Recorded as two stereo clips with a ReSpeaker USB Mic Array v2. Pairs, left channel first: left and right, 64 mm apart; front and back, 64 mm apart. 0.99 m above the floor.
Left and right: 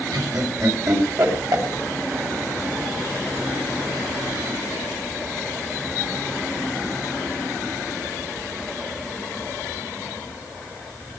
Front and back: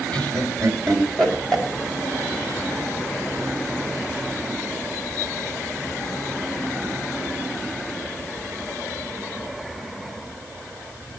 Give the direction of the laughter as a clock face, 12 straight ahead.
2 o'clock.